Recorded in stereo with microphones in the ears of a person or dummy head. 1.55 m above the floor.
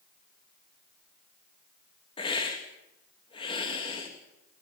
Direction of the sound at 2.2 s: 25° left (ahead or behind).